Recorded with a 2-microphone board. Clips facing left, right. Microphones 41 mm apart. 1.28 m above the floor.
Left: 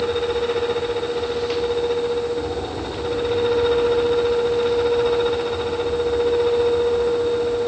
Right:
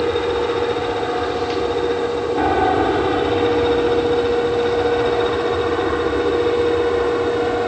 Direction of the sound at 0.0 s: 60° right (ahead or behind).